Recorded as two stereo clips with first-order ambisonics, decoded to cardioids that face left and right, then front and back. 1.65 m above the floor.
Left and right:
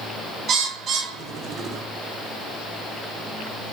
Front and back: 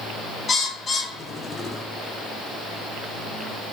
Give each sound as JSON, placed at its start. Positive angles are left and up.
{"t": 0.5, "sound": "a bird", "azimuth_deg": -65, "distance_m": 0.7}